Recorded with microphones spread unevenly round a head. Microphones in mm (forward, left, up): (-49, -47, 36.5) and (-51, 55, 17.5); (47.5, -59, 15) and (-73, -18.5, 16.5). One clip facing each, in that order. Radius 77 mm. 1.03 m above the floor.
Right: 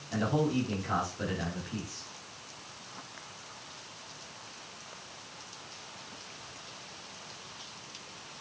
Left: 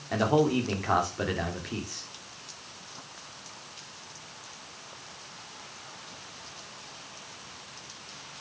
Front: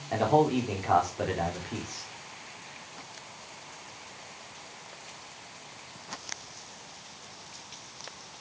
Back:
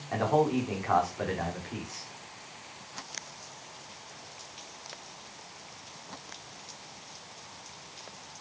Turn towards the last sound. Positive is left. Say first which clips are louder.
# left 5 dB, front 2 dB
turn(degrees=55)